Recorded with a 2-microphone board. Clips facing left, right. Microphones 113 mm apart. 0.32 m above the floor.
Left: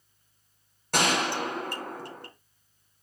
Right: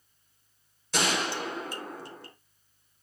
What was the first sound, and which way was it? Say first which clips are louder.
A gunshot: left 3 dB; 60° left (ahead or behind).